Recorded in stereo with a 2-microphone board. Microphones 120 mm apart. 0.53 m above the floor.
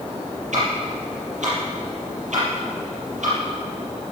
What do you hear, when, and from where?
0.5 s ticking: 80° right, 7.5 m